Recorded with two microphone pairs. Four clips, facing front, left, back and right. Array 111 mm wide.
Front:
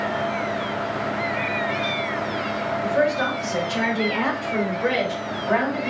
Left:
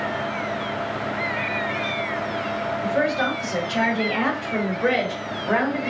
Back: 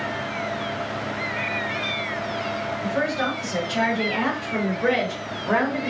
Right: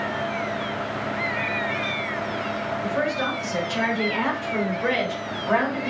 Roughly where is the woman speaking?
Left.